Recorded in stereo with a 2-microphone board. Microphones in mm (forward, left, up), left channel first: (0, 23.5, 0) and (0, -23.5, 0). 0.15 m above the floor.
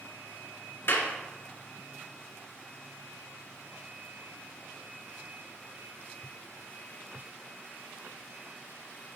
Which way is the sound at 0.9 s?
45° left (ahead or behind).